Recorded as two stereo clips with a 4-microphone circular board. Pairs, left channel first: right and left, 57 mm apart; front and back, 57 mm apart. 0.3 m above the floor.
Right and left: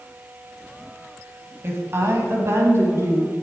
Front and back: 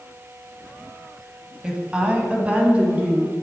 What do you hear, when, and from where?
1.6 s a woman speaking: 110° left, 1.9 m; by 3.3 s 120° left, 3 m